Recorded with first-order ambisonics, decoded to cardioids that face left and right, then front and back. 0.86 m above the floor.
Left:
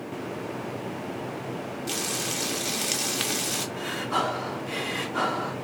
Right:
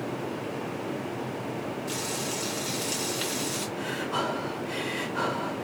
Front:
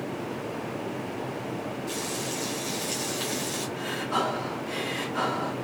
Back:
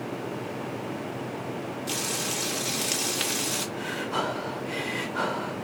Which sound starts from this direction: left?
Breathing, at 3.8 s.